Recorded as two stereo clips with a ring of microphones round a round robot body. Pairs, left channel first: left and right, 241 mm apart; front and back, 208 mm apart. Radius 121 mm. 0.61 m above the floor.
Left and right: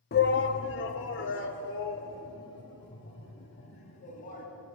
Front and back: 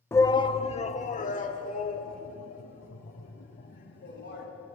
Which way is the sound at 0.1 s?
75° left.